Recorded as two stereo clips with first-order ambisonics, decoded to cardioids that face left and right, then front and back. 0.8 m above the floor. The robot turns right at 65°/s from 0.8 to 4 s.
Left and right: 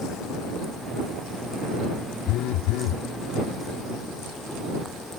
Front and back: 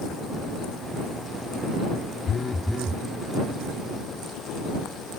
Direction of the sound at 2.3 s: 60° left.